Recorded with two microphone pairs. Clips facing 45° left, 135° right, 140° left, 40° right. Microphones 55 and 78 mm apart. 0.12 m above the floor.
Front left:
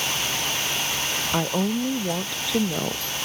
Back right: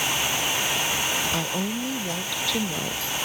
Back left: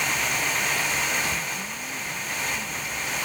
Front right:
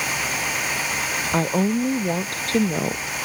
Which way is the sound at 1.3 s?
25° right.